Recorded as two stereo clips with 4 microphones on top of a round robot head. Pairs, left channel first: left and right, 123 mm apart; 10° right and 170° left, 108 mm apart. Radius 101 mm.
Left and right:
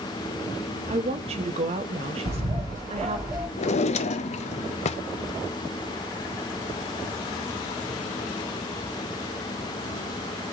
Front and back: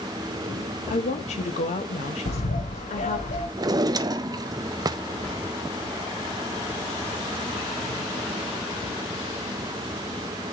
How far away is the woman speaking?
About 1.1 m.